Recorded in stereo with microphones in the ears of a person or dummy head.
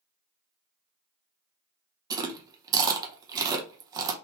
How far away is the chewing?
About 0.6 m.